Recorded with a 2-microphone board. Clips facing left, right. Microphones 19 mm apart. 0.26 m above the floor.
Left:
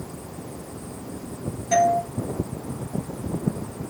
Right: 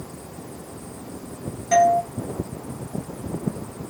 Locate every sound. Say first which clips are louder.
1.7 s a doorbell: right 3 dB; 10° right (ahead or behind), 1.4 m